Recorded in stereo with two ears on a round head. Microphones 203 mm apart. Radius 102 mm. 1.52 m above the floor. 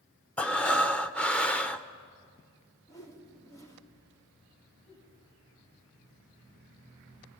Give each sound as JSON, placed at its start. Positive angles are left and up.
{"t": 0.4, "sound": "breathing", "side_deg": 5, "distance_m": 0.7}
{"t": 2.9, "sound": "a whoosh", "side_deg": 15, "distance_m": 2.5}
{"t": 4.9, "sound": "a giggle", "side_deg": 35, "distance_m": 8.5}